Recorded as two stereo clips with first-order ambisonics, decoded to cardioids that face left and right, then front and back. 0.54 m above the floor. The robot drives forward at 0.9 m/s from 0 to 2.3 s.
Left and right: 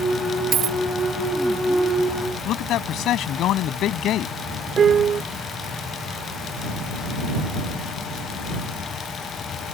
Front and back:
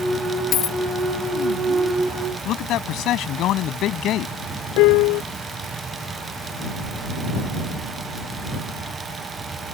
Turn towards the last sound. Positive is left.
turn(degrees=-25)